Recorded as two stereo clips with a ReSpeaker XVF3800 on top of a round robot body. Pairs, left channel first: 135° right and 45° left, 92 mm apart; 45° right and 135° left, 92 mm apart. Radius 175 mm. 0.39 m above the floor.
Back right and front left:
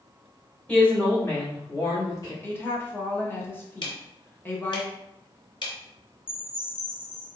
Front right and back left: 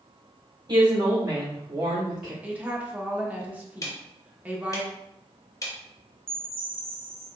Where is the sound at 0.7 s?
150° left, 1.6 m; by 2.3 s 145° right, 1.6 m.